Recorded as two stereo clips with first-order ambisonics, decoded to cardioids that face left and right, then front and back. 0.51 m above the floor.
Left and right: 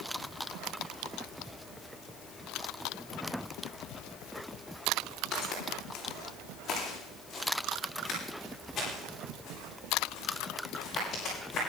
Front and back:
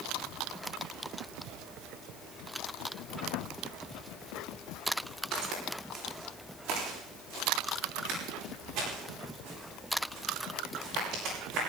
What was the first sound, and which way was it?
Footsteps, 145° left.